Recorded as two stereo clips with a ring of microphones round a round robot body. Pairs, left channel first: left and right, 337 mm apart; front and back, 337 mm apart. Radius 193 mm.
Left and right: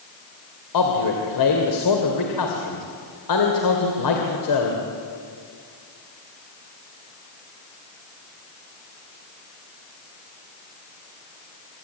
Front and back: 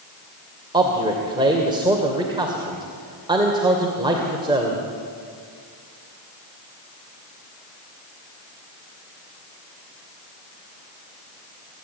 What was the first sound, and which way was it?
A man speaking, 105° left.